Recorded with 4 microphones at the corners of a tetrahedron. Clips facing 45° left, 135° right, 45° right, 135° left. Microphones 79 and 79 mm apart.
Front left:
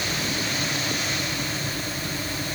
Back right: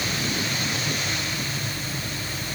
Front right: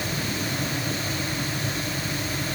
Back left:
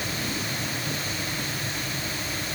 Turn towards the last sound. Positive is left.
No sound to turn to.